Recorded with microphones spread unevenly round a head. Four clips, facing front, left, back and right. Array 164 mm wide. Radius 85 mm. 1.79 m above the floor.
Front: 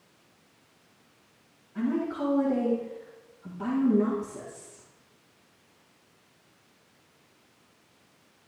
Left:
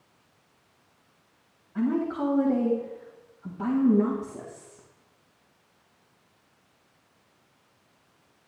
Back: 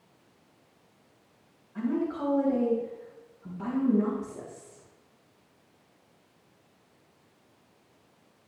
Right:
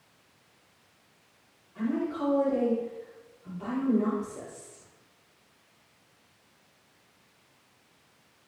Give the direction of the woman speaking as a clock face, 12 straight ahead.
9 o'clock.